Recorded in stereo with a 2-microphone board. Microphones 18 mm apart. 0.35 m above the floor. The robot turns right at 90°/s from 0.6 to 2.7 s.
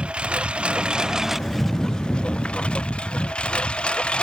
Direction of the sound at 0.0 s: 85° right.